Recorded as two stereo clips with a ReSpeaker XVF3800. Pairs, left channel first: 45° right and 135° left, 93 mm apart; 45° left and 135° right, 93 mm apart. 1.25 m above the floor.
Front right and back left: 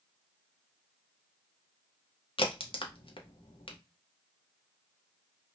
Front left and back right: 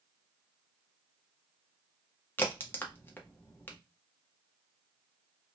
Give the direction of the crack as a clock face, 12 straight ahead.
1 o'clock.